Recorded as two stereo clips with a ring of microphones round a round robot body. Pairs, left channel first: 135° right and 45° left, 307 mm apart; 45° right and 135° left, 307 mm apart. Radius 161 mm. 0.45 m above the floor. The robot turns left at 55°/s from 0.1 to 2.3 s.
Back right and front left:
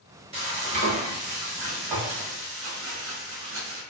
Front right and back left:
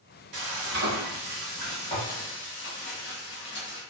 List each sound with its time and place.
0.3 s frying: 115° left, 1.2 m; by 3.8 s 10° left, 1.2 m